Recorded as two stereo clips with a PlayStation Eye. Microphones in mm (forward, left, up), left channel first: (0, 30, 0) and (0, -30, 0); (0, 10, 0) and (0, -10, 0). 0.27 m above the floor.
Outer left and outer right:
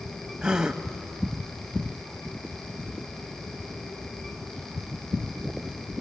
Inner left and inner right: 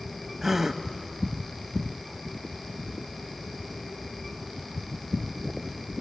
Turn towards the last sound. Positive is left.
turn(degrees=-10)  # may be behind; listen again after turning